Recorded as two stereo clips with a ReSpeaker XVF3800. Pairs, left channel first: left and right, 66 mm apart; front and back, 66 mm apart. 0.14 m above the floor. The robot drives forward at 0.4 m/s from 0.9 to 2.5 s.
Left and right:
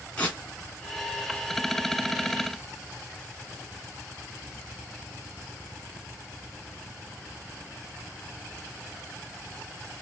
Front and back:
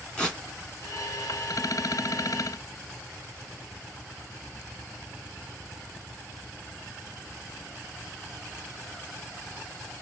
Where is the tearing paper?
50° left, 1.2 m.